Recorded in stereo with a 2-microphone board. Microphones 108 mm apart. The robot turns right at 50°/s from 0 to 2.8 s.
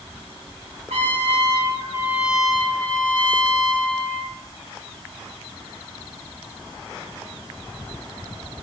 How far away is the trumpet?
About 0.6 m.